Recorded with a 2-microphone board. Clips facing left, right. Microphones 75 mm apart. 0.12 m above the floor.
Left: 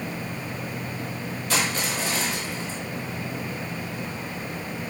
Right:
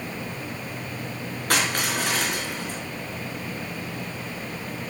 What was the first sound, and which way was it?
Crushing, 55° right (ahead or behind).